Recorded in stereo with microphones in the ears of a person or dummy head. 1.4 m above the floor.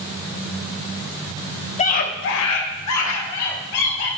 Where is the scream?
35° left (ahead or behind), 0.9 m; by 4.1 s 80° left, 2.5 m.